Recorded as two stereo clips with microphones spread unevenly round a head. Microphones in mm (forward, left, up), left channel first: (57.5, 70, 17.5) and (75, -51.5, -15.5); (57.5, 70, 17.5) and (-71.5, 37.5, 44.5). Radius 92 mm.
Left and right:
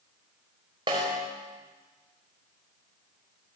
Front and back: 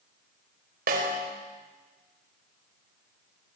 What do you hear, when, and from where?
0.9 s a snare drum: 150° right, 5 m